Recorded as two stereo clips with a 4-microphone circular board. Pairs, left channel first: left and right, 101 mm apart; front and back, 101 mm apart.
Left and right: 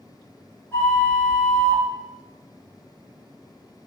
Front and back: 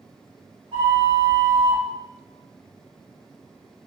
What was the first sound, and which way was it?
A flute, 155° left.